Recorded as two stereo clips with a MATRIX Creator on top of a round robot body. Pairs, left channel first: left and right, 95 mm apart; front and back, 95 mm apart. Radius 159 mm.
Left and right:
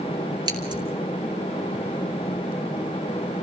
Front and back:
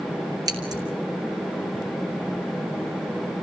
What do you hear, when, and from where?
0.5 s scissors: 130° right, 3.5 m